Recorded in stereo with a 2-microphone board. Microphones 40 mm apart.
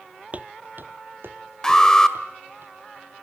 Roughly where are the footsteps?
Right.